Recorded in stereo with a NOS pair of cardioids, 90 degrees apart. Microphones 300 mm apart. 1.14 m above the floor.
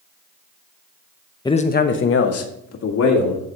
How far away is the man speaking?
About 0.8 m.